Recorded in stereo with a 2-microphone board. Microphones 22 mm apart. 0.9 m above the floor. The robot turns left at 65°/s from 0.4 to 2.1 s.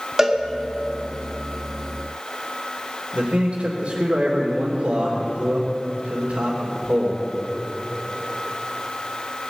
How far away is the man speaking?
About 2.5 m.